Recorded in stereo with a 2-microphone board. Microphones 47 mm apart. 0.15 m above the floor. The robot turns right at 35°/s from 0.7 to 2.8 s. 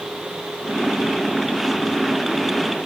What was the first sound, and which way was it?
Only background noise.